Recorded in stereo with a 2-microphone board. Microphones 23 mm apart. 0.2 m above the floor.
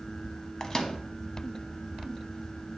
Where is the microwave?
30° left (ahead or behind), 0.9 m.